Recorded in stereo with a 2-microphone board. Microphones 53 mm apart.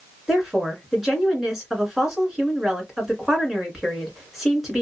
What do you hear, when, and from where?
0.3 s a woman speaking: 5° right (ahead or behind), 2 m